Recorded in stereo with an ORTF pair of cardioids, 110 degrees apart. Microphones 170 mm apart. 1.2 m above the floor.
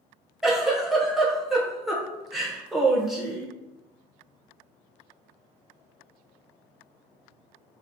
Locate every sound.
0.4 s a giggle: straight ahead, 0.6 m